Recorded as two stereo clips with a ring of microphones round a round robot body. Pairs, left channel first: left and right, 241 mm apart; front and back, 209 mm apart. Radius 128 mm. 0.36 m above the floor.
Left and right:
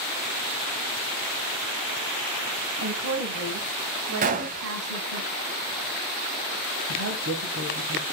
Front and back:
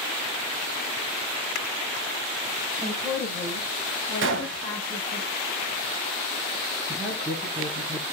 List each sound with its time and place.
2.8 s a woman speaking: 100° right, 2.0 m; by 5.2 s 60° right, 2.5 m
4.2 s a gunshot: 145° right, 1.0 m
6.9 s a woman speaking: 90° right, 1.9 m